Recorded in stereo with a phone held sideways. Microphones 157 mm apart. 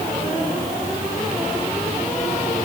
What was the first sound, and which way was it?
Only background noise.